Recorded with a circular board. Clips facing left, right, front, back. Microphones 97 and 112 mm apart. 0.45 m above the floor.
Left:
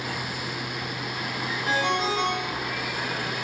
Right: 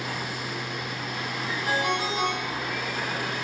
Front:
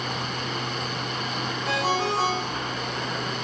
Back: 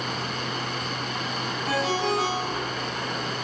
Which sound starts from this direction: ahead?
A ringtone, at 1.6 s.